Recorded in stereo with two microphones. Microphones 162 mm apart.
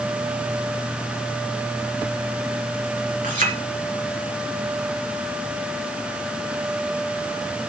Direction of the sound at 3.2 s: 55° right (ahead or behind).